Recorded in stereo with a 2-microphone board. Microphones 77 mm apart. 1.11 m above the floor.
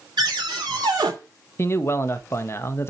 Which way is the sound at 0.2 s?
90° right.